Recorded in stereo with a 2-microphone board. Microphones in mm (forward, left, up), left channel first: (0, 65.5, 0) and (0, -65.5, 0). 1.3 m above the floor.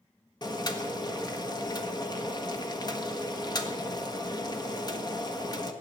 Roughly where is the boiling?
Left.